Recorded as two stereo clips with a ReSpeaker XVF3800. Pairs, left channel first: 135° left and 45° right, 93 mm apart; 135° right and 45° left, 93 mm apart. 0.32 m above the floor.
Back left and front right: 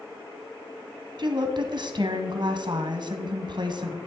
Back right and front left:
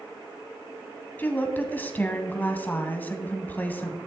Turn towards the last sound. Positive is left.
turn(degrees=-70)